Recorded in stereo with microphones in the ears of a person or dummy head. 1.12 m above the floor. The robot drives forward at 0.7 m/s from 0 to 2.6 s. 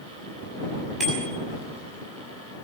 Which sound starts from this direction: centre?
A bicycle bell, at 1.0 s.